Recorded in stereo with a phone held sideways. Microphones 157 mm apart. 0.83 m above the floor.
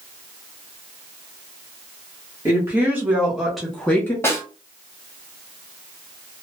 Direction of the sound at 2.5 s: 20° right (ahead or behind).